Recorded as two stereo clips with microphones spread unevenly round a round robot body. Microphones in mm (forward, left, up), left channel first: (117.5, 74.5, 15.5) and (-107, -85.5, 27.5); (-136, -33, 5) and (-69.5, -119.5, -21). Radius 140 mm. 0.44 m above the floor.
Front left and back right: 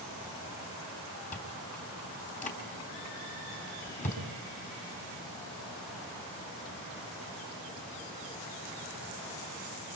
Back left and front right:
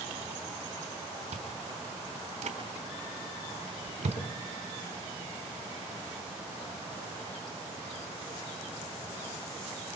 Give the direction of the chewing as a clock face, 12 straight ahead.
1 o'clock.